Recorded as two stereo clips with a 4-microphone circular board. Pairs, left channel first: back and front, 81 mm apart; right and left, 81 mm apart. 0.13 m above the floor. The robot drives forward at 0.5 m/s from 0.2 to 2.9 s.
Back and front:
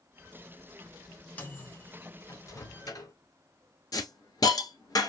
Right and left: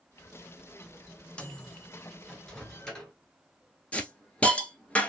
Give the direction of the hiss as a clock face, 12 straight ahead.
5 o'clock.